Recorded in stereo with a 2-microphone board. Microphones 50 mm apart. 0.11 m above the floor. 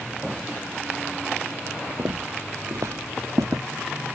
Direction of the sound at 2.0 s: 70° right (ahead or behind).